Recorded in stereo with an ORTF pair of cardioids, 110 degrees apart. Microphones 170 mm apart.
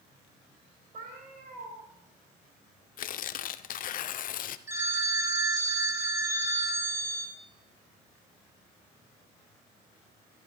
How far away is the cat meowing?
About 5.5 m.